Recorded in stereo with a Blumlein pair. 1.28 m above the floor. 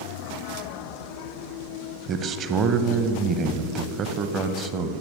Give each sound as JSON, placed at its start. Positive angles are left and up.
{"t": 2.1, "sound": "a man speaking", "azimuth_deg": -30, "distance_m": 0.8}